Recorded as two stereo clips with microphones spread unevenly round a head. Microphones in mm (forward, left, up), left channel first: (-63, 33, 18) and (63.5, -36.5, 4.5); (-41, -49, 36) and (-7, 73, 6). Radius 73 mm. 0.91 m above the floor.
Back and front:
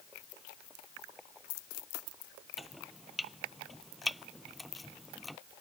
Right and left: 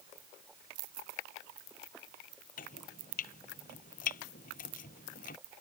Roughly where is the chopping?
Behind right.